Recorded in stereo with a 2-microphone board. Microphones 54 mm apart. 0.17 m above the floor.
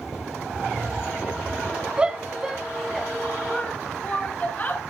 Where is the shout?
20° right (ahead or behind), 1.4 m; by 4.8 s 35° left (ahead or behind), 2 m.